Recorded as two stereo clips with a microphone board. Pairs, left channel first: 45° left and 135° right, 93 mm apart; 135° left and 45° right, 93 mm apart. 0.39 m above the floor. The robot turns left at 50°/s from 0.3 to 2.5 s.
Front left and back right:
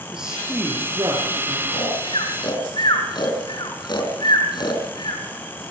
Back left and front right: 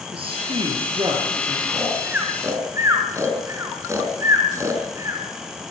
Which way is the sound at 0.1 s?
50° right.